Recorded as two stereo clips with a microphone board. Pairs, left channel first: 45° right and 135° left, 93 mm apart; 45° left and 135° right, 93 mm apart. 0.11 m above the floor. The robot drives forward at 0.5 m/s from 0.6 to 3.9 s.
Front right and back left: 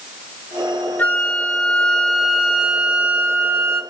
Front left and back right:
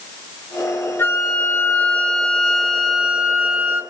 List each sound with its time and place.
1.0 s a flute: 5° left, 1.4 m; by 3.8 s 170° left, 1.3 m